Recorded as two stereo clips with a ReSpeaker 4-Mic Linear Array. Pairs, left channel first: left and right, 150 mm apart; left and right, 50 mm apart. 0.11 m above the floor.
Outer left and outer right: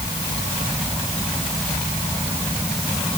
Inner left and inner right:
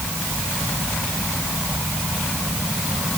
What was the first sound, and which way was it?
Only background noise.